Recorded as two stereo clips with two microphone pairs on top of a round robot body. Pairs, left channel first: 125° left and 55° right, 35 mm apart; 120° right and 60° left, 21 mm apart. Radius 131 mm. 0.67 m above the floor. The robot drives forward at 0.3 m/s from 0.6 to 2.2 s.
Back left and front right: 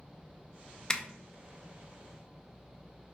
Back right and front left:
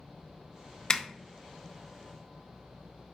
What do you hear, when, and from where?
0.9 s a zipper: 165° right, 0.6 m